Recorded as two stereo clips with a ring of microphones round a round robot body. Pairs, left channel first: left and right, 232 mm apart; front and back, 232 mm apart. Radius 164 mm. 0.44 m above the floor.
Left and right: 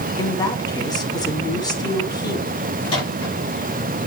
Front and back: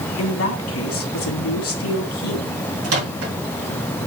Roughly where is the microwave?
Behind.